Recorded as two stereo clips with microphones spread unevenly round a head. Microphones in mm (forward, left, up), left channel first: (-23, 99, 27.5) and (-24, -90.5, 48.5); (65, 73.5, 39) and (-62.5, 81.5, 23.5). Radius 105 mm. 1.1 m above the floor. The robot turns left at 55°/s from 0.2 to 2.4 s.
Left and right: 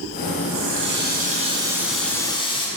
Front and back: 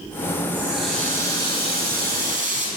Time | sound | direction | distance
0.5 | a running tap | 100° right | 6.5 m